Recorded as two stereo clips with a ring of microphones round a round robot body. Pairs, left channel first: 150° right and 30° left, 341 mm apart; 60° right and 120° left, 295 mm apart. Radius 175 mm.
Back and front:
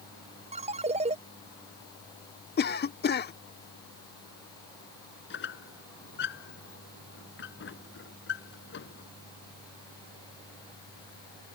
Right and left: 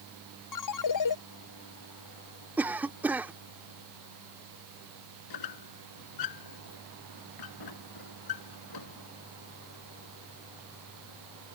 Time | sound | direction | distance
0.5 | a ringtone | 45° right | ?
2.6 | a cough | 160° right | ?
5.3 | a squeak | 90° right | ?